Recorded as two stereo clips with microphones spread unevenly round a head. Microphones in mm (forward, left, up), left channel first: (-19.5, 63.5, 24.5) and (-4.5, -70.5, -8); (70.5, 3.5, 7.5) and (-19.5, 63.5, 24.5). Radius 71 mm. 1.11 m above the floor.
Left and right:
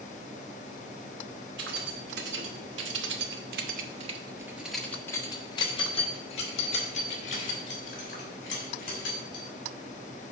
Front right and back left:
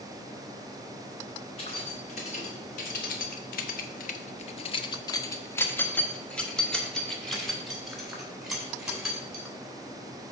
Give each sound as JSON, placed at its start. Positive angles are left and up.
{"t": 1.6, "sound": "keys jangling", "azimuth_deg": -90, "distance_m": 1.8}